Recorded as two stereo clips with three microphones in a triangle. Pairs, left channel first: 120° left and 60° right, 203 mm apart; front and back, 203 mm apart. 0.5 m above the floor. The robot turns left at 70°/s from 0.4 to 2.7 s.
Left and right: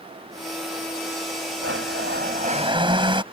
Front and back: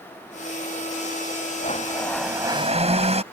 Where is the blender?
50° right; by 3.2 s 125° right.